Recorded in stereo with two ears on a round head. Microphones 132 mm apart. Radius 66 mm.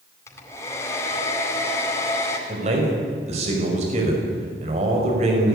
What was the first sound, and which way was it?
A hair dryer, 20° left (ahead or behind).